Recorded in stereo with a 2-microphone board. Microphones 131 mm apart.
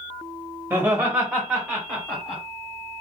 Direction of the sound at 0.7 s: 20° right (ahead or behind).